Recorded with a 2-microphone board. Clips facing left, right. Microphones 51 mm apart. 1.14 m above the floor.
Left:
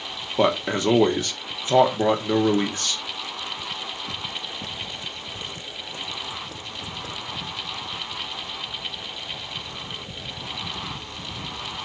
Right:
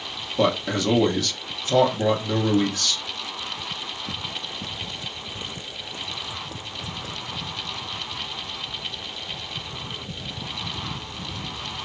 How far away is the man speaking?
About 0.8 m.